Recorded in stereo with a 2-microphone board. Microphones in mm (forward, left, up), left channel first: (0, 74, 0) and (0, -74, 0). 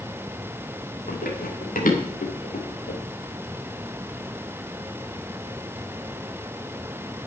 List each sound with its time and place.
1.1 s running footsteps: 75° left (ahead or behind), 4 m; by 3.0 s 60° left (ahead or behind), 3.5 m